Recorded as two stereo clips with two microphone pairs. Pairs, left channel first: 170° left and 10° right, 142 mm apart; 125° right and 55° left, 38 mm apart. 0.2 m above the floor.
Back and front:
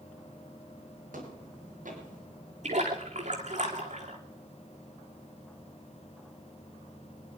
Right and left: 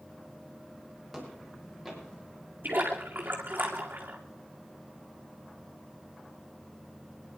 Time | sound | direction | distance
1.1 | footsteps | 35° right | 7 m
2.6 | a splash | 20° left | 2.5 m